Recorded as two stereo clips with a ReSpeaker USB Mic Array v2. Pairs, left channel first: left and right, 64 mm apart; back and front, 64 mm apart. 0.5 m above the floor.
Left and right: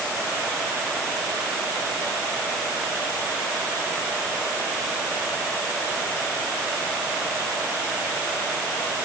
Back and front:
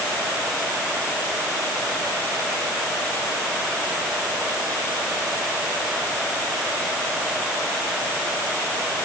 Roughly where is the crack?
No crack in this recording.